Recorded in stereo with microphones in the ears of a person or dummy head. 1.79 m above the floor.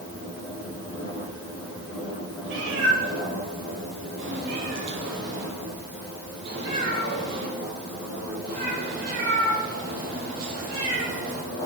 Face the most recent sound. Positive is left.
turn(degrees=-50)  # may be behind; listen again after turning